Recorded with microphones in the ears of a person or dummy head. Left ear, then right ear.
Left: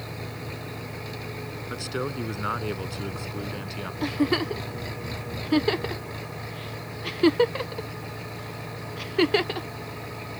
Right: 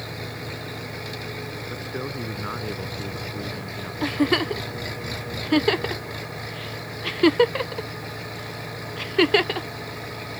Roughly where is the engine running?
Centre.